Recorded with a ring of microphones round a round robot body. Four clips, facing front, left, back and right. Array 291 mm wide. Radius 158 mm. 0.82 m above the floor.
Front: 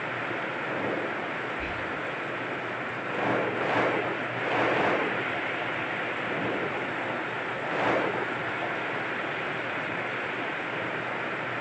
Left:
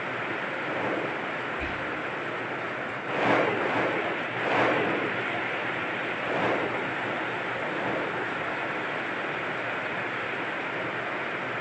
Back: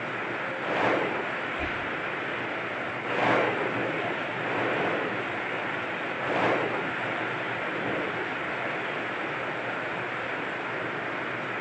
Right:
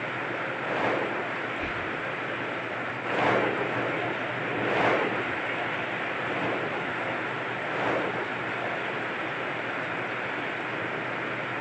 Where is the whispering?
170° left, 0.9 m.